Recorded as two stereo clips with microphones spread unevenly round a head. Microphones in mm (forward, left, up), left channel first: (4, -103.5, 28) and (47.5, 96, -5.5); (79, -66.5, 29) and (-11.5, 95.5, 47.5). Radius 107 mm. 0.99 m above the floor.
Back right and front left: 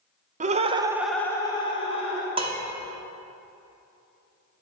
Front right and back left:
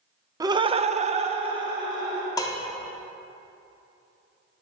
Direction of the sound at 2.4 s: 10° left.